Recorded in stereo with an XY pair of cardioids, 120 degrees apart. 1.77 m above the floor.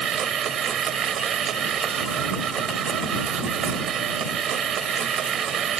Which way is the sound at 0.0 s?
50° right.